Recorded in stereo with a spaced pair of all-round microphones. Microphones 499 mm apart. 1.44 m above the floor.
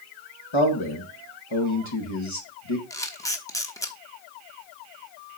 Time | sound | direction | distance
0.5 | a man speaking | 65° left (ahead or behind) | 2.0 m
2.9 | a camera shutter | 5° left (ahead or behind) | 1.0 m